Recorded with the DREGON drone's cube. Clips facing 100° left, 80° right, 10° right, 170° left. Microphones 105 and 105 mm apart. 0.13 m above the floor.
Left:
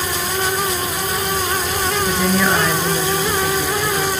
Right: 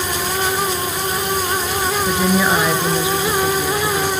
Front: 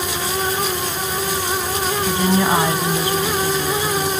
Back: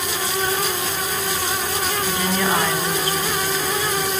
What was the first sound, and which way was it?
A woman speaking, 25° right.